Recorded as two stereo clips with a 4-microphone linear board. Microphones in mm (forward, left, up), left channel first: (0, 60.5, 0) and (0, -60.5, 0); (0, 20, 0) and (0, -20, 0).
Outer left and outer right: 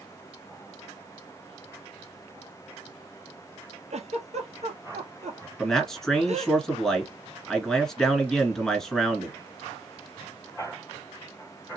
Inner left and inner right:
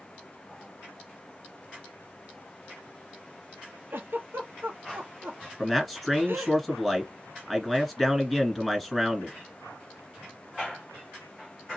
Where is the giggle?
70° right (ahead or behind), 1.1 m.